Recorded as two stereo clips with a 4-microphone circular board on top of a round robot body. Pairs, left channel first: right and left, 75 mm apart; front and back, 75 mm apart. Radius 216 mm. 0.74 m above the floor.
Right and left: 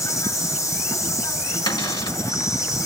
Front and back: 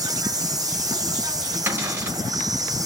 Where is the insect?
135° right, 4.5 m.